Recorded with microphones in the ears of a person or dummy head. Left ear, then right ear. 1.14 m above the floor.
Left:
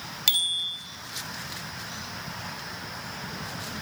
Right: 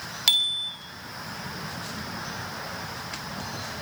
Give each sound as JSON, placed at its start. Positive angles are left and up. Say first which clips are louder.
{"t": 0.3, "sound": "a bicycle bell", "louder": "right 2 dB", "side_deg": -10, "distance_m": 2.5}